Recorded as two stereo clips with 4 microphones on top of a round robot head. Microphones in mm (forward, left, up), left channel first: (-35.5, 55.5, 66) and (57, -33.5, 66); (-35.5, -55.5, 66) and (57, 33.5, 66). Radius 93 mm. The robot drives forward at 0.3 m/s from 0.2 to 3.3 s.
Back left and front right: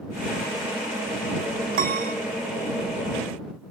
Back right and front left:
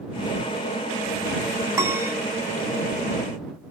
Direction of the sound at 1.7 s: 25° right.